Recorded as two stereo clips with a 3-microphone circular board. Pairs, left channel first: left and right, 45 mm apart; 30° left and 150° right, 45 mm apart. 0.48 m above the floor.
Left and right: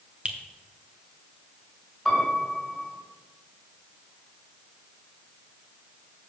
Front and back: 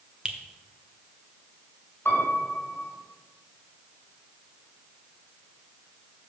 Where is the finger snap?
105° right, 1.1 m.